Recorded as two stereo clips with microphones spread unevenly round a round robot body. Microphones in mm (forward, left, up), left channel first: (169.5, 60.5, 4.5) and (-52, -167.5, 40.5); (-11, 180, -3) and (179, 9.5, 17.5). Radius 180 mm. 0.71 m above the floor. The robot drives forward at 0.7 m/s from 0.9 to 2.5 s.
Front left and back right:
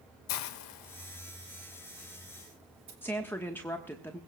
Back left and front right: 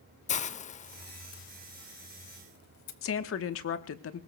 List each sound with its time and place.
0.3 s a hiss: 75° left, 0.6 m; by 2.9 s 155° left, 1.1 m
3.0 s a woman speaking: 125° left, 1.1 m